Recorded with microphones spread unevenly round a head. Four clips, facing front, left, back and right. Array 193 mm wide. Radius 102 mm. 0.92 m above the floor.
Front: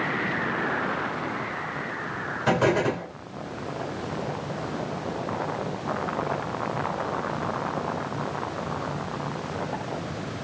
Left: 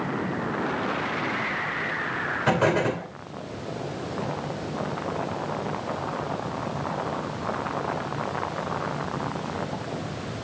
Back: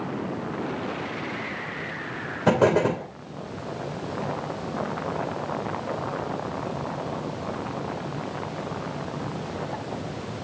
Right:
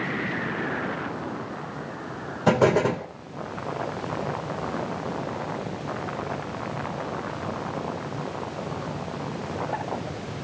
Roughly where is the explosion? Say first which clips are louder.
Right 3 dB, back 3 dB; behind right.